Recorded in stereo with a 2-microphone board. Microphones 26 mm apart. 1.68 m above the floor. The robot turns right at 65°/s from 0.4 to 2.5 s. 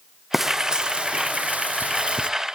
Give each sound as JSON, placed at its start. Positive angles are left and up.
{"t": 0.3, "sound": "frying", "azimuth_deg": -170, "distance_m": 1.0}